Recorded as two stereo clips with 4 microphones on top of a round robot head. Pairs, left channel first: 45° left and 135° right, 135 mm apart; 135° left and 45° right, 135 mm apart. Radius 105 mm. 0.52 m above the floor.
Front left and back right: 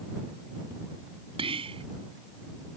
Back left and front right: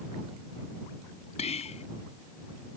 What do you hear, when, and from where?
1.4 s whispering: 175° left